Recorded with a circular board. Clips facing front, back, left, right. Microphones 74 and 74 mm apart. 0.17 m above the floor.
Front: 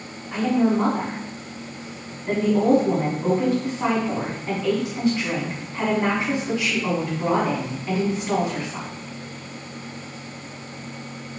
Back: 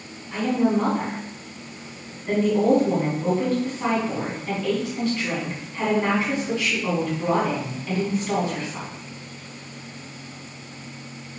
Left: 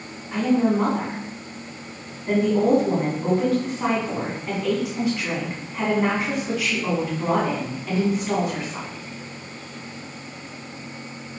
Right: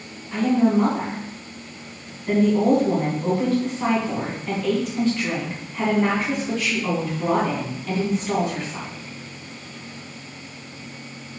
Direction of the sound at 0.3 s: 30° left.